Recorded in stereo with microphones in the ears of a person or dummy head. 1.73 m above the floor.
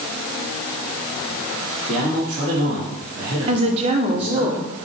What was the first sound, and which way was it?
A man speaking, 40° right (ahead or behind).